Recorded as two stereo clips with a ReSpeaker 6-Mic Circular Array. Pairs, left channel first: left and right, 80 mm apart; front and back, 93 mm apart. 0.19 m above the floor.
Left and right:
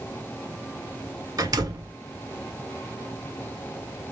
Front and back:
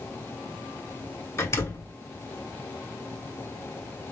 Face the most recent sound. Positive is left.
turn(degrees=-60)